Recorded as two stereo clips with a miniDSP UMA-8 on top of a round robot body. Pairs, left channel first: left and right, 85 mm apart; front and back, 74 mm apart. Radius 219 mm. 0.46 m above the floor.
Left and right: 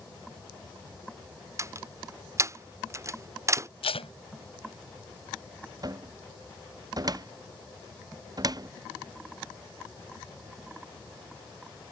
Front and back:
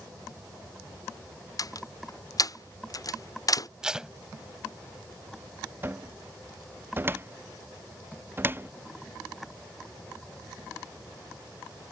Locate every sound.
1.6 s a door slam: 35° right
3.8 s tape being pulled: 100° left
5.8 s a cupboard door: 120° right